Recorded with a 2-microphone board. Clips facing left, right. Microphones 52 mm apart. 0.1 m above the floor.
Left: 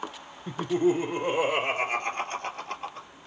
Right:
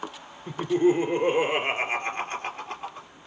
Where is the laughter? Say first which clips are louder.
Right 3 dB; 40° right (ahead or behind), 3 m; by 3.1 s 10° right (ahead or behind), 1.8 m.